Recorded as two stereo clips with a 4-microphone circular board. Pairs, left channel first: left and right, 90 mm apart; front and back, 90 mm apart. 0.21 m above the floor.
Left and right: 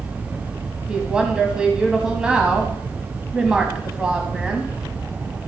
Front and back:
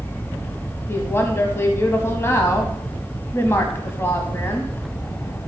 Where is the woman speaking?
20° right, 1.0 m.